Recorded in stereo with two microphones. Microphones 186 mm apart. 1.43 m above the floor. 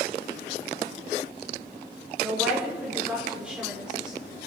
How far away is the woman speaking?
About 5.5 m.